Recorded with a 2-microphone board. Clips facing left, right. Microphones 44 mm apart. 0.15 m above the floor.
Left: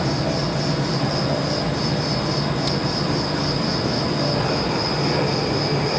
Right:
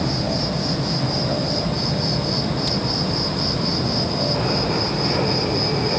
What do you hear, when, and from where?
0.0 s an insect: 50° left (ahead or behind), 3 m